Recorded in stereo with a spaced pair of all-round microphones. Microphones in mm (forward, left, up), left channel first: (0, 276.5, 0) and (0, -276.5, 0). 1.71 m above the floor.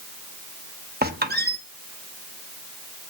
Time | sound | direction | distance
1.0 | a squeak | 15° right (ahead or behind) | 1.1 m